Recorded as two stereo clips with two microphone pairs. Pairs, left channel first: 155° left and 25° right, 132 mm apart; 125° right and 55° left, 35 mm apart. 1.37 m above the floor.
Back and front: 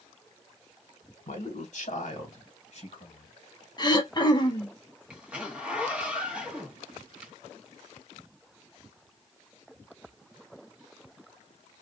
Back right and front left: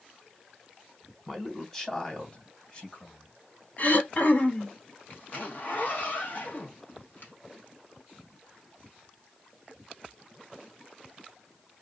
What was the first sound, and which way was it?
A man speaking, 155° left.